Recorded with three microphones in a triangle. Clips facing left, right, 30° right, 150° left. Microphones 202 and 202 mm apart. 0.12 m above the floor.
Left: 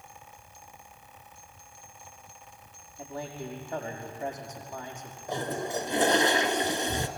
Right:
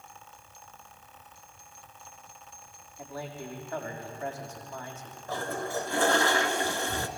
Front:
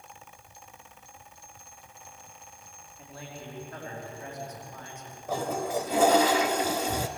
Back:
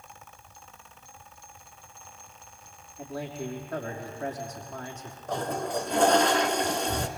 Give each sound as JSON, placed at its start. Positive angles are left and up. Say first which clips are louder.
{"t": 3.0, "sound": "a man speaking", "louder": "left 2 dB, back 9 dB", "azimuth_deg": 160, "distance_m": 5.5}
{"t": 5.3, "sound": "a toilet flushing", "louder": "left 1 dB, front 1 dB", "azimuth_deg": 50, "distance_m": 1.2}